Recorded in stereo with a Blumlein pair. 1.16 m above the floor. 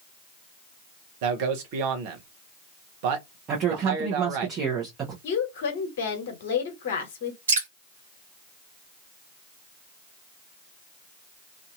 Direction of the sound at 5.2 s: 50° left.